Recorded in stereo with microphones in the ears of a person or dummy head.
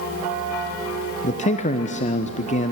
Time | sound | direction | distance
1.2 | a man speaking | 35° left (ahead or behind) | 1.1 m